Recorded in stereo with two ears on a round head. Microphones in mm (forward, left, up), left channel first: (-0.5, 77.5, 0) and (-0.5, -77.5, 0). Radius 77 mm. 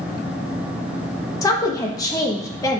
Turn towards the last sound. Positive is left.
turn(degrees=20)  # may be behind; listen again after turning